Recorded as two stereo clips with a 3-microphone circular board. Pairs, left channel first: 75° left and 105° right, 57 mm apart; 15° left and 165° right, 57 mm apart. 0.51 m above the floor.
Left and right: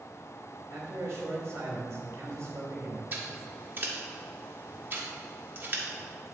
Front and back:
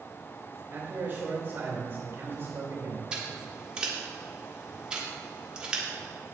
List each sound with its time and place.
0.7 s a man speaking: 120° right, 2.5 m
3.1 s scissors: 100° right, 1.3 m